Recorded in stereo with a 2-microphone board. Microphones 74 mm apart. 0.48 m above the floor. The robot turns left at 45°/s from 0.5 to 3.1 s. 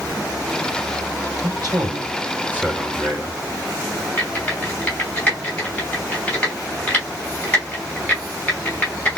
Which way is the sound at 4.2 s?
15° left (ahead or behind).